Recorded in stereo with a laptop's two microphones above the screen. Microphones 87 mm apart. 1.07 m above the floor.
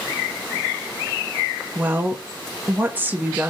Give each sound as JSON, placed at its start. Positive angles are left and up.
{"t": 1.8, "sound": "a woman speaking", "side_deg": -20, "distance_m": 0.6}